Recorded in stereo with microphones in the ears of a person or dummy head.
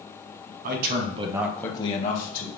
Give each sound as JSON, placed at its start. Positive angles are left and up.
{"t": 0.6, "sound": "a man speaking", "side_deg": -60, "distance_m": 1.2}